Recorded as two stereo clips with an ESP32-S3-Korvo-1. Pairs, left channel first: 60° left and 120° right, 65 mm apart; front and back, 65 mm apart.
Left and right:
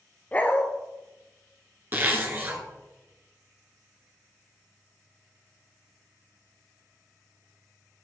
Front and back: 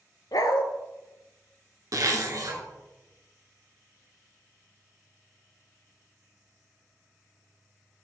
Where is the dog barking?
5° right, 0.9 m.